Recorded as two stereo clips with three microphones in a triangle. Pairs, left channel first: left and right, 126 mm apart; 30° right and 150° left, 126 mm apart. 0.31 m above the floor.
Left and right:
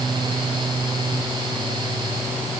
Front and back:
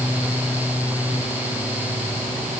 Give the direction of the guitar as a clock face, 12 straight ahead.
No guitar in this recording.